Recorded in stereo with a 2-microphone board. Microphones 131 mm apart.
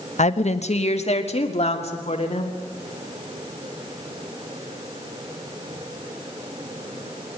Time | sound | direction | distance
0.2 | a woman speaking | 60° left (ahead or behind) | 0.9 m